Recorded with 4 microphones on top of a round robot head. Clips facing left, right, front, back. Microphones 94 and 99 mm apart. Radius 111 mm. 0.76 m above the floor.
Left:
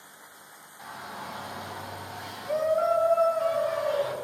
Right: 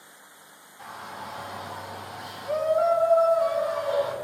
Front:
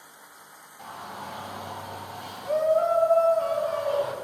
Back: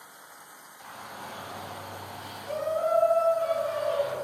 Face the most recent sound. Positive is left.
turn(degrees=-20)